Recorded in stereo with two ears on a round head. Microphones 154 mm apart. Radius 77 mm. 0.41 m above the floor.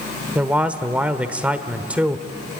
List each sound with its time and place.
0.3 s a man speaking: 10° right (ahead or behind), 1.1 m